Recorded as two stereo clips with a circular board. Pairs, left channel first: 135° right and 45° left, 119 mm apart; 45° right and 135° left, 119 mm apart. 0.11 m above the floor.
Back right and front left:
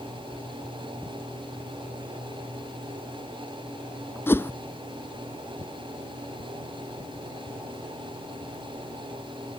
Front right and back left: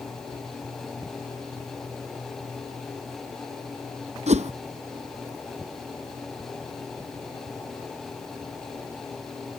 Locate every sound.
4.3 s a whoosh: 155° left